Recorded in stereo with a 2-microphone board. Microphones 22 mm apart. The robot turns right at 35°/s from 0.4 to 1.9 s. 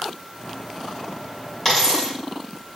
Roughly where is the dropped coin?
Centre.